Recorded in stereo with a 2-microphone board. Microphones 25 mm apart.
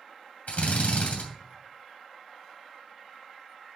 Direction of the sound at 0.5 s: 85° left.